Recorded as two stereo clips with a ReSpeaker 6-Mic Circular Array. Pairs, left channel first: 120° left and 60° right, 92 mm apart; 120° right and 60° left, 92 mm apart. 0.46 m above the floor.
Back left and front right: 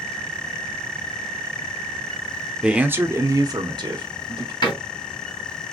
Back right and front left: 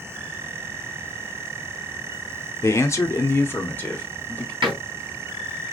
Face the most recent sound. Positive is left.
turn(degrees=85)